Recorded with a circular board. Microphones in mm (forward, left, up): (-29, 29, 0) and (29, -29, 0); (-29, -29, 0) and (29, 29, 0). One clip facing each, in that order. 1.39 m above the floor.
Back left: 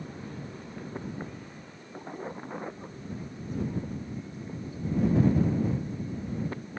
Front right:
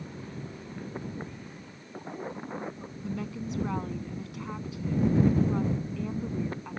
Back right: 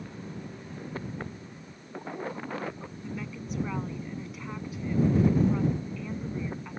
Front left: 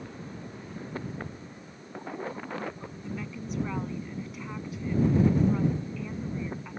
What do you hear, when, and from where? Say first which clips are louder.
3.0 s a woman speaking: front right 5 dB, front left 1 dB; 45° right